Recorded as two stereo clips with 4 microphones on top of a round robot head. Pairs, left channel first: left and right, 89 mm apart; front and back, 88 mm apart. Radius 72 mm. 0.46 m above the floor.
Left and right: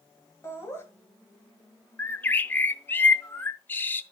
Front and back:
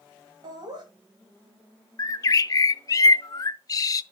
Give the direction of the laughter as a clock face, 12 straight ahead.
7 o'clock.